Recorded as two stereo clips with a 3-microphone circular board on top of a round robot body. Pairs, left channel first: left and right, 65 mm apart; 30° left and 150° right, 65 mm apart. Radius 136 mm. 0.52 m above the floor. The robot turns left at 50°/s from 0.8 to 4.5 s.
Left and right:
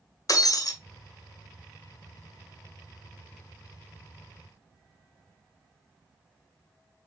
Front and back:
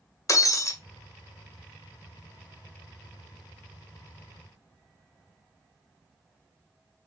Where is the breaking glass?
60° left, 1.5 m.